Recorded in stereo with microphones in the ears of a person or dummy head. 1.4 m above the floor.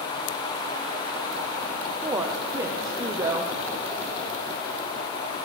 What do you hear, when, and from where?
2.0 s a woman speaking: 15° right (ahead or behind), 0.8 m